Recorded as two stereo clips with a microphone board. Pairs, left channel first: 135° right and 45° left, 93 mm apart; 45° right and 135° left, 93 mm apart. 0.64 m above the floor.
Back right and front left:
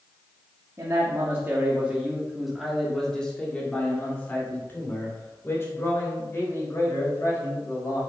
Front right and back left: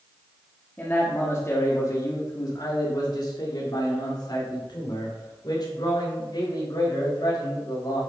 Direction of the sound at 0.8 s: 15° left.